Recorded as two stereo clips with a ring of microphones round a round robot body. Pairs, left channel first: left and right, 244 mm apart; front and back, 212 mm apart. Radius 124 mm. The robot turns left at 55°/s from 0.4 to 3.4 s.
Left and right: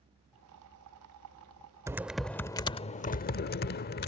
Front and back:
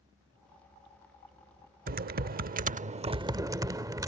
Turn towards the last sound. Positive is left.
turn(degrees=115)